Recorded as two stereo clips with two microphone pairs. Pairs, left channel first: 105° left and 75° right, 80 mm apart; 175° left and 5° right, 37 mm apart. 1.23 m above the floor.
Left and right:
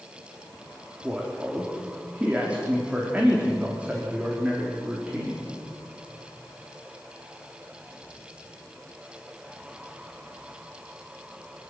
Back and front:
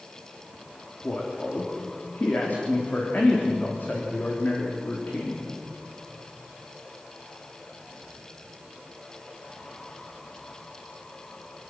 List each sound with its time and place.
1.0 s a man speaking: 150° right, 3 m